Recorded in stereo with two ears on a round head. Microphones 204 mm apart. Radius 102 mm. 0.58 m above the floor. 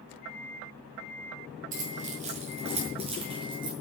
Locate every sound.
1.7 s keys jangling: 35° right (ahead or behind), 5.5 m; by 3.7 s 20° right (ahead or behind), 7 m